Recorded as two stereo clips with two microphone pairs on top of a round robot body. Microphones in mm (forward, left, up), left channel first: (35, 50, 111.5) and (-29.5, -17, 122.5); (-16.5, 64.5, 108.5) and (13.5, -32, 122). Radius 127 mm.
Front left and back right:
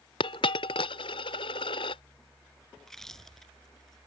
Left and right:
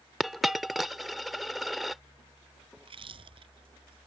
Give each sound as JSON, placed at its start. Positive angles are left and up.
{"t": 0.2, "sound": "a dropped coin", "azimuth_deg": 10}
{"t": 2.8, "sound": "chewing", "azimuth_deg": -40}